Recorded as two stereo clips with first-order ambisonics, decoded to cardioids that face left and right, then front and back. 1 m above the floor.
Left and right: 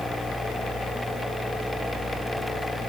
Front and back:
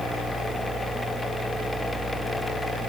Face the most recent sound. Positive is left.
No sound to turn to.